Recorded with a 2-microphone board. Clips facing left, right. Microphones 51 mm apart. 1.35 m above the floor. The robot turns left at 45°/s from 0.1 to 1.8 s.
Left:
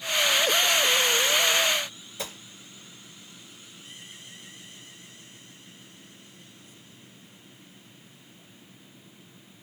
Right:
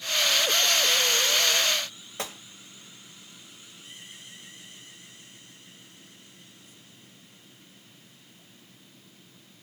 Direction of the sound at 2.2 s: 60° right (ahead or behind).